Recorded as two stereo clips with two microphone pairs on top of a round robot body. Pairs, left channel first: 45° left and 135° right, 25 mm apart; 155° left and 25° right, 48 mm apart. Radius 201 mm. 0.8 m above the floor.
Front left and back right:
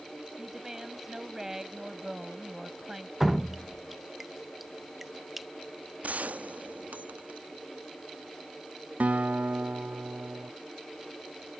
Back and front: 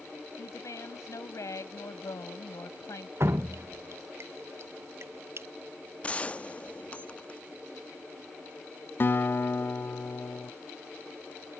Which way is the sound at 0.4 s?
145° left.